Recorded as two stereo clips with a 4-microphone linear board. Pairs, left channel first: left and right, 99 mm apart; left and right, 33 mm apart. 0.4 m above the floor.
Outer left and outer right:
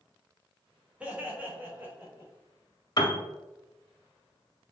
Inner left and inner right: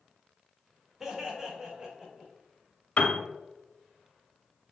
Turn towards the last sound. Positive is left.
turn(degrees=45)  # may be behind; listen again after turning